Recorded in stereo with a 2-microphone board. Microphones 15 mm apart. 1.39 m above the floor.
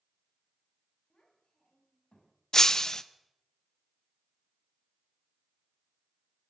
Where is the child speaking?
65° left (ahead or behind), 6.5 m; by 2.4 s 75° left (ahead or behind), 7 m.